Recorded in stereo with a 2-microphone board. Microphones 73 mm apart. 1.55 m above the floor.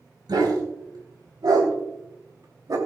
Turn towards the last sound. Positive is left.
turn(degrees=-60)  # may be behind; listen again after turning